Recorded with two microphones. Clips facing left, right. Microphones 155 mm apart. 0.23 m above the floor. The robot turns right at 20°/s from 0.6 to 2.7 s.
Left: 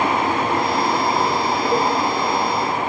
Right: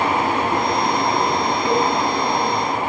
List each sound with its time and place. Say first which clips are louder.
1.6 s a cowbell: right 1 dB; 50° left (ahead or behind), 2.5 m